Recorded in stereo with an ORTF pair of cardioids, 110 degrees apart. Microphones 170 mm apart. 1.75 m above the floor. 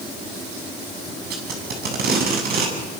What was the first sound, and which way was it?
Tape being pulled, 65° right.